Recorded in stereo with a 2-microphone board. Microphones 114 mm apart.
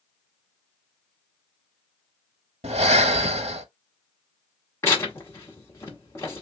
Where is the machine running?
No machine running in this recording.